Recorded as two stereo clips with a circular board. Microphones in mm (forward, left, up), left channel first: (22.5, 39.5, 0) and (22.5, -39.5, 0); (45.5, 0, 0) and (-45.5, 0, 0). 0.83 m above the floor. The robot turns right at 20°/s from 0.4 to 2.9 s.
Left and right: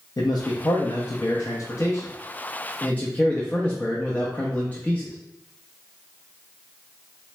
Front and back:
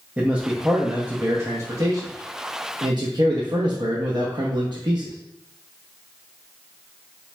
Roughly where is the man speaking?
Left.